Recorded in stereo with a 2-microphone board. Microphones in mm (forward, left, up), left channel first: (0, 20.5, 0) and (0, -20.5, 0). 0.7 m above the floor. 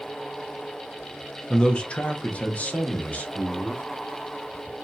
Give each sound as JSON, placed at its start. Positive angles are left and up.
{"t": 1.5, "sound": "a man speaking", "side_deg": 20, "distance_m": 0.6}